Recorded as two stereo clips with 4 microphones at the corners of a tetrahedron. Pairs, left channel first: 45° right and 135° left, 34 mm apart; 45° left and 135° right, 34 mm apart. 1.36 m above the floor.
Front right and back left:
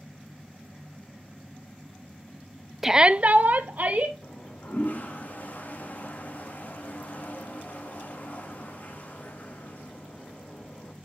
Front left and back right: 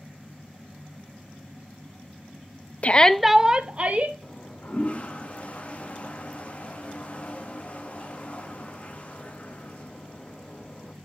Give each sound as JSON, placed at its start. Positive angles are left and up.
{"t": 2.8, "sound": "a shout", "azimuth_deg": 55, "distance_m": 0.5}
{"t": 4.2, "sound": "a toilet flushing", "azimuth_deg": -5, "distance_m": 1.5}